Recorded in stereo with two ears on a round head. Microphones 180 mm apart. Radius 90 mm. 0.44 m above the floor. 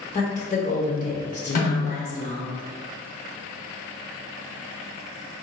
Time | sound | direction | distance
0.1 | a woman speaking | 35° left (ahead or behind) | 0.9 m
1.6 | a snare drum | 45° left (ahead or behind) | 1.7 m